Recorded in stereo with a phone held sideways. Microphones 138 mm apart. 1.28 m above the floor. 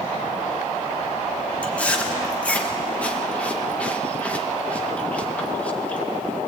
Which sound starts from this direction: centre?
Chewing, at 1.6 s.